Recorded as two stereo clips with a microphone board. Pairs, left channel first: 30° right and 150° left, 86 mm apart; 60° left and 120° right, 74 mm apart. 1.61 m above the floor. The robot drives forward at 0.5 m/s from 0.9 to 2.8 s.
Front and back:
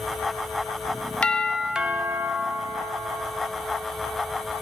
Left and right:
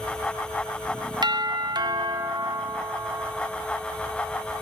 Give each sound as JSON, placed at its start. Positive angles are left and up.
{"t": 1.2, "sound": "a doorbell", "azimuth_deg": -105, "distance_m": 0.5}